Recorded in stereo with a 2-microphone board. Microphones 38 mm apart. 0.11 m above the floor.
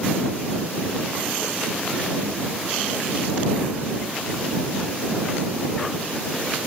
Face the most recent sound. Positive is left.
No sound to turn to.